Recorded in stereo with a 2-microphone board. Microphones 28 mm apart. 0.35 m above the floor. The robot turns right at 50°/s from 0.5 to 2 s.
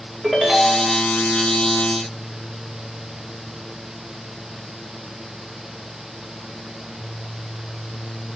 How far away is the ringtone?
About 0.8 m.